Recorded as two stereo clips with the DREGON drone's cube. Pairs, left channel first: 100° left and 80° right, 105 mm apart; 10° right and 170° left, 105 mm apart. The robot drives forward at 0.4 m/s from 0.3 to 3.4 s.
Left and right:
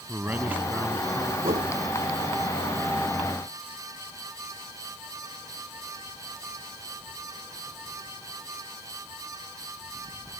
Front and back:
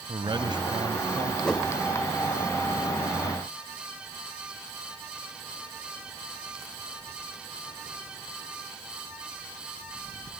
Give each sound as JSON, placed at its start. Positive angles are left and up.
{"t": 0.1, "sound": "a man speaking", "azimuth_deg": -150}
{"t": 1.4, "sound": "a whoosh", "azimuth_deg": -90}